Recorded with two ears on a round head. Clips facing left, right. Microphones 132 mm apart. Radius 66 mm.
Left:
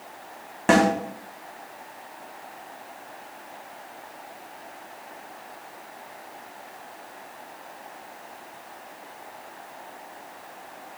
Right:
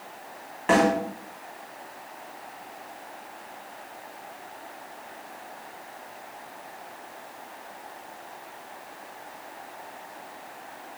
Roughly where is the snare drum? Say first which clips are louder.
Left 2 dB; left.